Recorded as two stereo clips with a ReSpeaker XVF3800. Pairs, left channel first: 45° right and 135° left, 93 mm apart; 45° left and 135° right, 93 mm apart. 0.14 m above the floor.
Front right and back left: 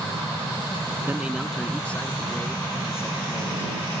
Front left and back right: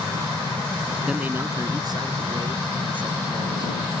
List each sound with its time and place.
1.1 s a man speaking: 155° left; by 3.9 s 105° right